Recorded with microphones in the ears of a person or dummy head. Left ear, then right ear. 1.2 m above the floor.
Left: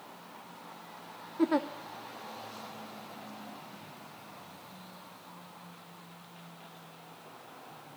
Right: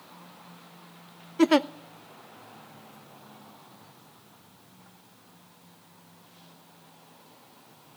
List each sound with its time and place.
1.4 s a giggle: 70° right (ahead or behind), 0.5 m